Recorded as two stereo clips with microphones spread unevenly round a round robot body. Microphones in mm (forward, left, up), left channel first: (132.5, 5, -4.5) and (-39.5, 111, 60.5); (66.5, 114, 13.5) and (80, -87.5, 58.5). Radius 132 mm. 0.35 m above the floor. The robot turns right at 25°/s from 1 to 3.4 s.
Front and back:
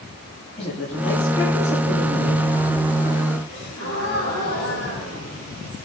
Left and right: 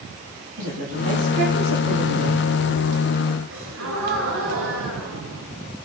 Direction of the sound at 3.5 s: 80° right.